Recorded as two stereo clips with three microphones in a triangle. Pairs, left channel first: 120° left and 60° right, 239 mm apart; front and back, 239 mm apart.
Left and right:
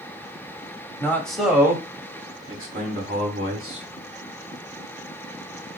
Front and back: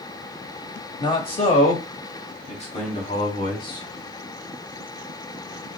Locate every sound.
1.0 s a man speaking: 50° left, 1.3 m; by 3.9 s 60° right, 2 m